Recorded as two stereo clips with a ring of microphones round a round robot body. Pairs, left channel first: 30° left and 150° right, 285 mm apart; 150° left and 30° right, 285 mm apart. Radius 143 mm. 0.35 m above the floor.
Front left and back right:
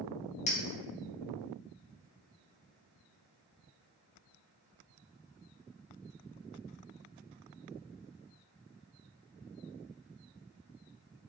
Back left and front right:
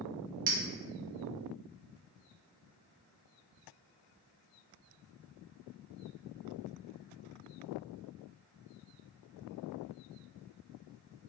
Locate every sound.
0.5 s a clink: 25° right, 0.6 m